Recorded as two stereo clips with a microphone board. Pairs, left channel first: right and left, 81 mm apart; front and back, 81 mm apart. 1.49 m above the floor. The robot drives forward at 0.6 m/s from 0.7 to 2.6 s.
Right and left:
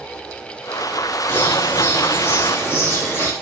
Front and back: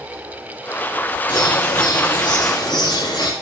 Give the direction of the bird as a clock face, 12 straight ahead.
1 o'clock.